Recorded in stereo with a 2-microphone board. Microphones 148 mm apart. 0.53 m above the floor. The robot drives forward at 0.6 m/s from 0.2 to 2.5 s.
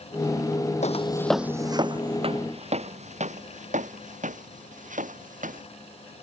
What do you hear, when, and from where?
0.8 s footsteps: 55° left (ahead or behind); by 5.7 s 65° right (ahead or behind)